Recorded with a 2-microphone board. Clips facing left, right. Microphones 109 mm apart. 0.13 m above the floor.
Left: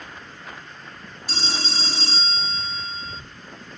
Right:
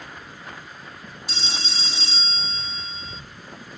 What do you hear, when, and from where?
1.3 s a phone ringing: 40° left (ahead or behind)